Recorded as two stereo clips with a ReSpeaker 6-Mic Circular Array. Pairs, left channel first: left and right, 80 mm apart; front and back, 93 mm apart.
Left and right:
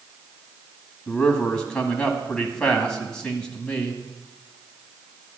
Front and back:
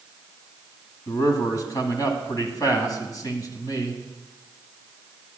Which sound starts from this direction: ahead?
A man speaking, at 1.1 s.